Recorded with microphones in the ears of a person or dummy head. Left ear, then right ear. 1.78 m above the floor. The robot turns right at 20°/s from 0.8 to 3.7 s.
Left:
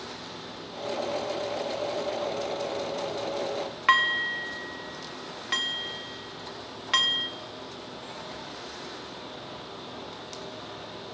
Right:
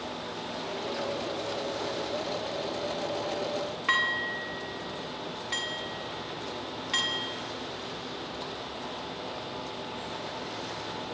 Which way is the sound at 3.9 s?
15° left (ahead or behind).